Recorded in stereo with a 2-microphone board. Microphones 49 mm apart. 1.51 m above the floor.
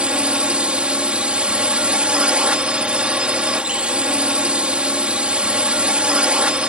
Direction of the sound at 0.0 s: 20° right (ahead or behind).